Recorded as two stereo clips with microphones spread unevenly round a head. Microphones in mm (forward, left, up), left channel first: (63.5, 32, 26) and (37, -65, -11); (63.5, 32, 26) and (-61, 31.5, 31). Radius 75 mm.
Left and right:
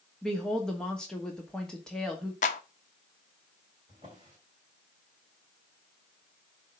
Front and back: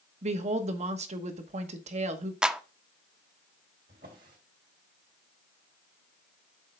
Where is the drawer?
170° right, 2.5 m.